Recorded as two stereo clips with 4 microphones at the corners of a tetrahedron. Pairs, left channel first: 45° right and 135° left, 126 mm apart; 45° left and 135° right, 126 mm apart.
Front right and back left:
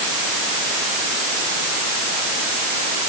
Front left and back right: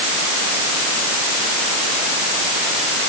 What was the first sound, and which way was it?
Only background noise.